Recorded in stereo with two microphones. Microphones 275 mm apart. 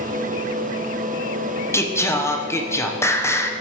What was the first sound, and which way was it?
Singing, 10° left (ahead or behind).